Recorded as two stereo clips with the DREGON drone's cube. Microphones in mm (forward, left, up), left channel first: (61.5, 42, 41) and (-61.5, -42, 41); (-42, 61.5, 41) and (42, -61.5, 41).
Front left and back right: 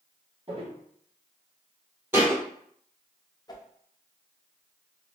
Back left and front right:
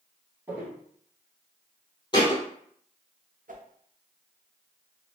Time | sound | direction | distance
0.5 | footsteps | 130° right | 1.9 m
2.1 | a thud | 150° left | 1.6 m
3.5 | a whoosh | 30° right | 0.5 m